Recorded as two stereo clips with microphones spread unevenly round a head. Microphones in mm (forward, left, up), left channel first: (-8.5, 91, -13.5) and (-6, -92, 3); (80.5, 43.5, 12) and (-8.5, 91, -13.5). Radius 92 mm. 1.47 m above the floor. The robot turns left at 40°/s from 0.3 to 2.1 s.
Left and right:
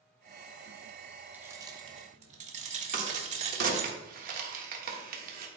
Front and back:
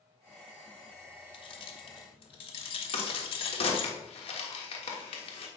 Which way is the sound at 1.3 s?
10° right.